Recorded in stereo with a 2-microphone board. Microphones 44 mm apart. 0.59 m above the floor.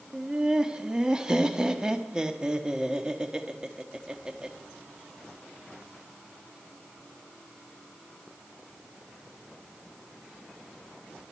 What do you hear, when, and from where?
0.1 s laughter: 15° right (ahead or behind), 1.0 m